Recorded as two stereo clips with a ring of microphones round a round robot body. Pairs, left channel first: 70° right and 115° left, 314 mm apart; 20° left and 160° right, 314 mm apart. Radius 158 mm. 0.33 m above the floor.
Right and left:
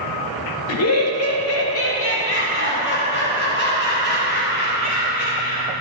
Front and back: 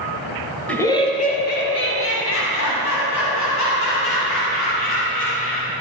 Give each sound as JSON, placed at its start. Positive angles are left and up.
{"t": 0.7, "sound": "laughter", "azimuth_deg": -60, "distance_m": 1.1}